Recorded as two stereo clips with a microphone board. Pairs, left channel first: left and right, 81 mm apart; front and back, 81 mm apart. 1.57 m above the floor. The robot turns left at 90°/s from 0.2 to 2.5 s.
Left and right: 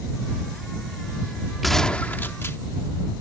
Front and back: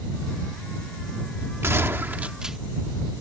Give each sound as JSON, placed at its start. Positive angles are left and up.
{"t": 1.6, "sound": "a gunshot", "azimuth_deg": -175}